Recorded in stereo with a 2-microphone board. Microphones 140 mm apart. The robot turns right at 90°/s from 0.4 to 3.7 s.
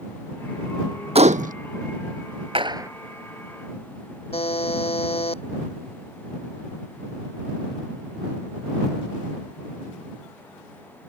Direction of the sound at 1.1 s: 135° right.